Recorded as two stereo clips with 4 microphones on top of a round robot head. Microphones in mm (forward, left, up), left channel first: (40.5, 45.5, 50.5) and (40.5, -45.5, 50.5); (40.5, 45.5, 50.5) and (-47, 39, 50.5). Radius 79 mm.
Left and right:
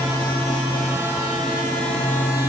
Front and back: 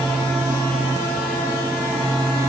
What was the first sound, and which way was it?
Only background noise.